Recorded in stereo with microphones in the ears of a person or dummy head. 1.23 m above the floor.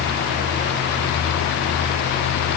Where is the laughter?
No laughter in this recording.